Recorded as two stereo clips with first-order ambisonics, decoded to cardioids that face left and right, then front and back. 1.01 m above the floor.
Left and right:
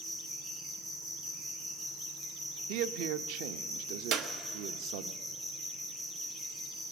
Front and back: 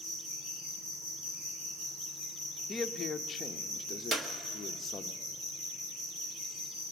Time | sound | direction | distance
0.0 | an insect | 150° right | 5 m
2.7 | a man speaking | 75° right | 0.7 m
4.1 | a clap | 120° right | 1.1 m